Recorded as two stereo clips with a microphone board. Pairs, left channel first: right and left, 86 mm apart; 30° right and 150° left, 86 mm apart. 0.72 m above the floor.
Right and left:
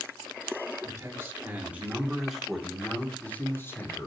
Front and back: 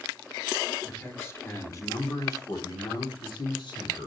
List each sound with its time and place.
0.8 s a man speaking: 35° left, 2 m; by 4.1 s 35° right, 2 m